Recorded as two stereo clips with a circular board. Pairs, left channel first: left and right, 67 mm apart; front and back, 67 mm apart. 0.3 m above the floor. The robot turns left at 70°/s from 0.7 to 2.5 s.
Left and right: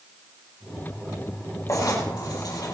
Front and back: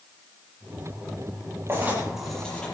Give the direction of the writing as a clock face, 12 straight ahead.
8 o'clock.